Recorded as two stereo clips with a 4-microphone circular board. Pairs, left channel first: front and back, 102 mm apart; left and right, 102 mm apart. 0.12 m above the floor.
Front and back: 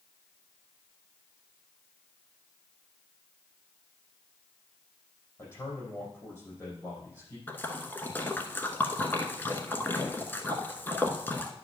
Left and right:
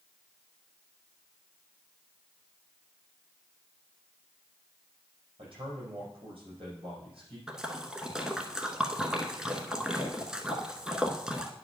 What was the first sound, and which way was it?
A man speaking, 60° right.